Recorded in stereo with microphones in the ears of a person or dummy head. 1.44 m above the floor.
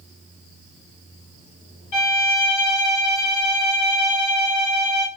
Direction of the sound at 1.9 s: 35° left (ahead or behind).